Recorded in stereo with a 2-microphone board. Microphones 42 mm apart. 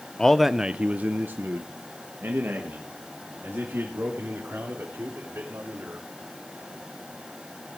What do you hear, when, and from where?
0.2 s a man speaking: 15° left (ahead or behind), 0.6 m; by 6.1 s 65° right (ahead or behind), 4.5 m